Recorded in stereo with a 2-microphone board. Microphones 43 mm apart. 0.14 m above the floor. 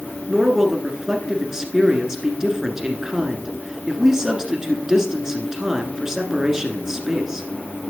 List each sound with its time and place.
0.3 s a man speaking: 15° right (ahead or behind), 1.5 m